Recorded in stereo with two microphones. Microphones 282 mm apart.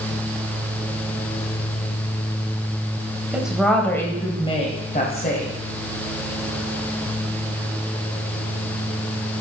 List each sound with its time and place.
3.3 s a woman speaking: 5° right (ahead or behind), 1.6 m; by 5.5 s 35° left (ahead or behind), 1.7 m